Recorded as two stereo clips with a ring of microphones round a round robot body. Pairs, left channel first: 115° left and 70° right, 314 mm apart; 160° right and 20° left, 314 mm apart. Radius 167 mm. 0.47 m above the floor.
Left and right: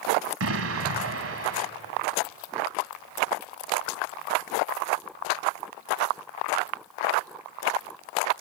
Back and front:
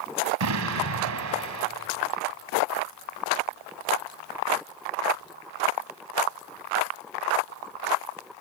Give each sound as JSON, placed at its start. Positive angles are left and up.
{"t": 0.4, "sound": "an explosion", "azimuth_deg": -20, "distance_m": 1.3}